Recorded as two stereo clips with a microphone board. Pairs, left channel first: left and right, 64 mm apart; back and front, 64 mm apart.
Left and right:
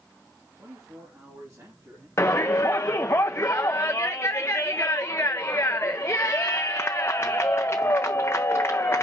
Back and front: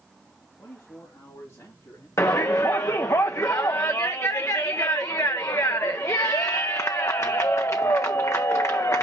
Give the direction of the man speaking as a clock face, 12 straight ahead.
4 o'clock.